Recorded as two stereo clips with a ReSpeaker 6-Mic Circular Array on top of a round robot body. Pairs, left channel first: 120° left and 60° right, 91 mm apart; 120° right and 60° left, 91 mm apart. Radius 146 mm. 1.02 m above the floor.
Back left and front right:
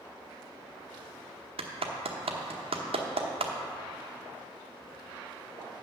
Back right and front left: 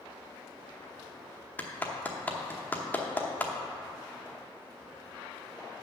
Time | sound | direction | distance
1.6 | a clap | 45° right | 0.9 m